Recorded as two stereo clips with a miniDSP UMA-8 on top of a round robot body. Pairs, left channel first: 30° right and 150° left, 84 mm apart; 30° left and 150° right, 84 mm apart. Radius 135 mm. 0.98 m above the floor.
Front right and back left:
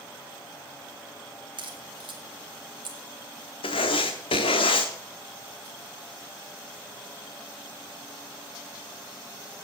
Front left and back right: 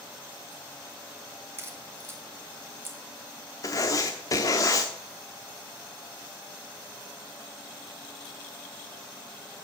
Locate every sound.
1.6 s a crack: 150° left, 2.0 m
3.6 s writing: 20° right, 0.8 m